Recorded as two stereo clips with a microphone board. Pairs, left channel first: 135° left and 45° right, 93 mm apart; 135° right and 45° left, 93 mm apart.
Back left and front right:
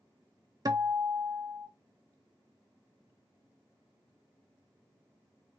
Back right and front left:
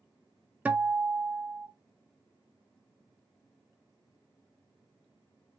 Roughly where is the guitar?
Ahead right.